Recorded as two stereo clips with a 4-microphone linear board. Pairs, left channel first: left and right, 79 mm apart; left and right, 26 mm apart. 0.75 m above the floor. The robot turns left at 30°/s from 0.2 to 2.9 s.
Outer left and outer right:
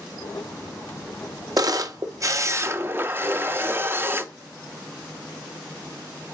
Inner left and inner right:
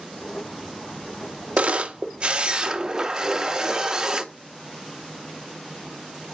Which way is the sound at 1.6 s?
105° right.